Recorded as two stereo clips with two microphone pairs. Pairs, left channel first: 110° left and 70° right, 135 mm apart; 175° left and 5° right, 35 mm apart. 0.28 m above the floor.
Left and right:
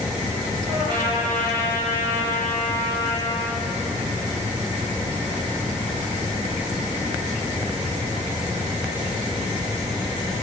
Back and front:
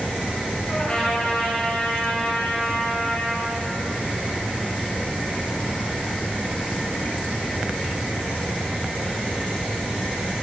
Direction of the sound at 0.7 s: 115° right.